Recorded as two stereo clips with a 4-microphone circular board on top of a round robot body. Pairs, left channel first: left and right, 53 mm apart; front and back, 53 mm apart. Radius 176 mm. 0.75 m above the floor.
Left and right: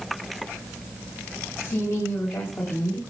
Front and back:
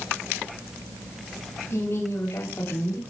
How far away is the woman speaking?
About 6.5 m.